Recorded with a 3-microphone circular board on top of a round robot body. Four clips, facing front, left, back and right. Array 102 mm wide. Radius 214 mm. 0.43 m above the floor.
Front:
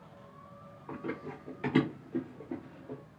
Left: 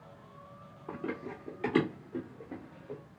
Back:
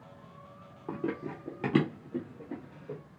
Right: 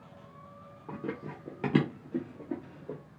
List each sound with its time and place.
0.9 s running footsteps: straight behind, 0.7 m; by 3.0 s 95° right, 1.3 m